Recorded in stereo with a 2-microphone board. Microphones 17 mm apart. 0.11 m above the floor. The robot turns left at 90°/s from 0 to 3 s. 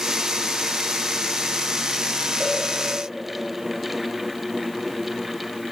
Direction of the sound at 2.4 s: 5° right (ahead or behind).